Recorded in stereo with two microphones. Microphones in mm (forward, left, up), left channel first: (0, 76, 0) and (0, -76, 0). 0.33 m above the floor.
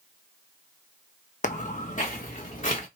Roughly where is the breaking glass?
No breaking glass in this recording.